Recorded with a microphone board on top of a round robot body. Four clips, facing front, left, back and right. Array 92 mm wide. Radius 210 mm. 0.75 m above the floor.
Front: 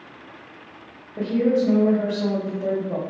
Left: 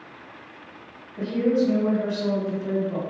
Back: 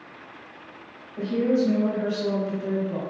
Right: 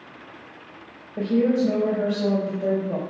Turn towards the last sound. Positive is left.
turn(degrees=-55)